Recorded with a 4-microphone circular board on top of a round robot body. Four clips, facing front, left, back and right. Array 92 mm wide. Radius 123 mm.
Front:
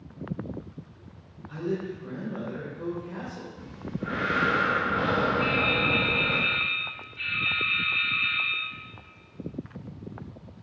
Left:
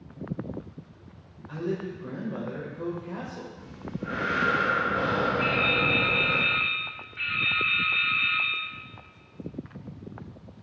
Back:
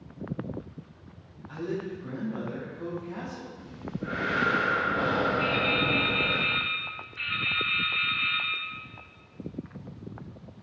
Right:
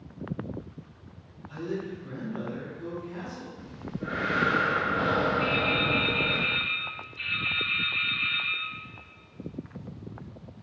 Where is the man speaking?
85° left, 4 m.